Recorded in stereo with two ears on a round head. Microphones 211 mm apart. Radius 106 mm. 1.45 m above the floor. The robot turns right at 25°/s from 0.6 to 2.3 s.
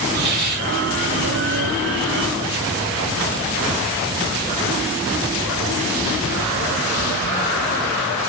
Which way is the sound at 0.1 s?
45° right (ahead or behind).